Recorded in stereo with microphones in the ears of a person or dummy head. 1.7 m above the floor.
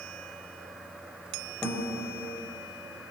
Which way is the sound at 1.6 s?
5° left (ahead or behind).